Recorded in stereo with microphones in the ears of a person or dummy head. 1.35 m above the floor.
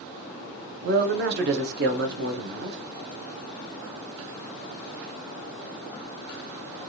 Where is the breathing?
No breathing in this recording.